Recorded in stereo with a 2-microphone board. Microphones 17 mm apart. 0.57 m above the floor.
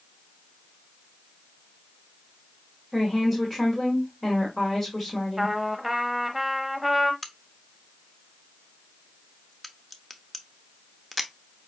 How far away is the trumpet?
About 0.8 m.